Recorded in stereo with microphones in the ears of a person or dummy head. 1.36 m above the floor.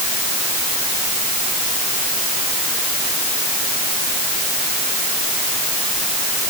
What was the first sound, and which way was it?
Only background noise.